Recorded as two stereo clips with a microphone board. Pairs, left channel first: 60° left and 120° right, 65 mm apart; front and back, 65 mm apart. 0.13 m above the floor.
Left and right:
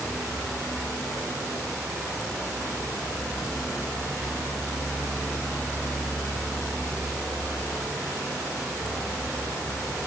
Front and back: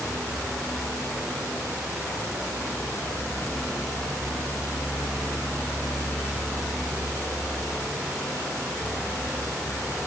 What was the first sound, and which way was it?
Only background noise.